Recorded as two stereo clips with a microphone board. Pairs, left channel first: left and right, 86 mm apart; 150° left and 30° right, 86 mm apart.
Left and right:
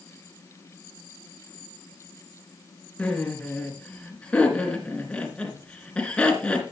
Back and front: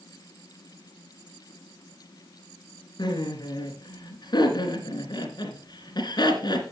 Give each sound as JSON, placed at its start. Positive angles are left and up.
{"t": 3.0, "sound": "laughter", "azimuth_deg": 165, "distance_m": 2.5}